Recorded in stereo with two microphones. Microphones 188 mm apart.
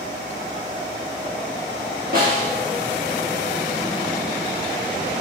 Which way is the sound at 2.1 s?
50° right (ahead or behind).